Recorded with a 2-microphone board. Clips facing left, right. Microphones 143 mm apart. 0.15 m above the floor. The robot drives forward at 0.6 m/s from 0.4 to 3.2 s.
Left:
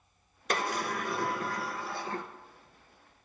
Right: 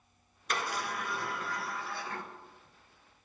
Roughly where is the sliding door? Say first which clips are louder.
Left 4 dB; left.